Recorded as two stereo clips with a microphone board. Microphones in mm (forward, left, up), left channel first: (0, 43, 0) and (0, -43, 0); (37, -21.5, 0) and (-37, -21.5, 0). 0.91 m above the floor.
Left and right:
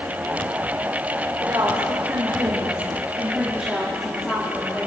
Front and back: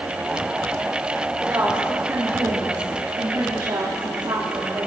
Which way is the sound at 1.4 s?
125° right.